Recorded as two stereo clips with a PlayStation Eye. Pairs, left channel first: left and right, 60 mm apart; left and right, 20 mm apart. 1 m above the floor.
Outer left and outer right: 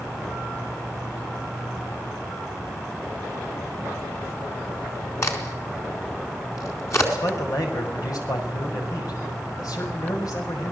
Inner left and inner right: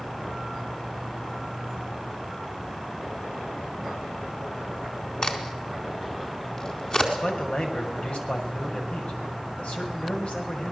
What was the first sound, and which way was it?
A crack, 55° left (ahead or behind).